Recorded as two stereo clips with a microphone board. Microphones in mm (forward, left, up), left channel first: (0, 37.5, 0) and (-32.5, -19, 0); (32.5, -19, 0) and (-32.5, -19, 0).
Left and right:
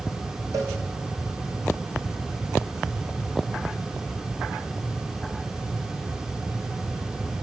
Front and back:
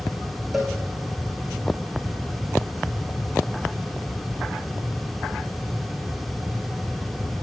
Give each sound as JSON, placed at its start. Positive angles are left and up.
{"t": 0.5, "sound": "a cowbell", "azimuth_deg": -90, "distance_m": 6.5}